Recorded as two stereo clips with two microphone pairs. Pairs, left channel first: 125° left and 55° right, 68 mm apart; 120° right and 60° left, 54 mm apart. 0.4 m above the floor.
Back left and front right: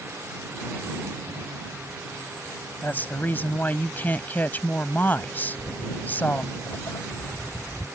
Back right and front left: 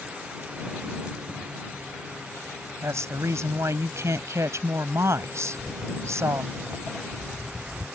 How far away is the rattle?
I don't hear a rattle.